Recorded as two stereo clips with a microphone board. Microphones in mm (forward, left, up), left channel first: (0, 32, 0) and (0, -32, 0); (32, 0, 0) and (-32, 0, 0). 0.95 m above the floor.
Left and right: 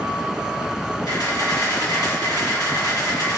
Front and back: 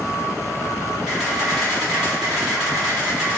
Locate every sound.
1.1 s a camera shutter: 95° left, 1.6 m